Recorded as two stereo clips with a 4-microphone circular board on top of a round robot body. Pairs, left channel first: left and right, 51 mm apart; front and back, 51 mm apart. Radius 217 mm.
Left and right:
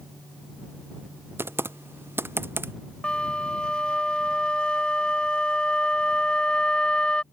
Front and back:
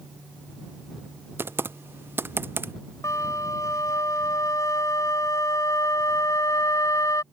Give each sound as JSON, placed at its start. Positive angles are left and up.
{"t": 1.4, "sound": "typing on a keyboard", "azimuth_deg": -135}
{"t": 3.0, "sound": "a flute", "azimuth_deg": 15}